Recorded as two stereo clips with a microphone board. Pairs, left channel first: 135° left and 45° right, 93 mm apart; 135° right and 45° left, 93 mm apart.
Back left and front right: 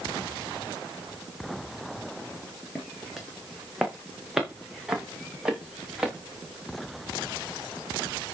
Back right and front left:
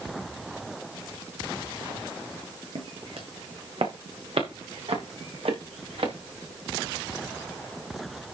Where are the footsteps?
45° left, 2.5 m; by 6.1 s 35° left, 5 m.